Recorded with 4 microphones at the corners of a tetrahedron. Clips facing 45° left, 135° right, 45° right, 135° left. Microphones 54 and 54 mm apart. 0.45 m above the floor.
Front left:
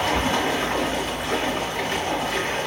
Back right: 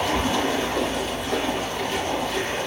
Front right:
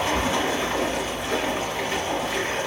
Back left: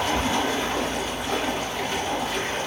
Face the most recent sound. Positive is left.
turn(degrees=20)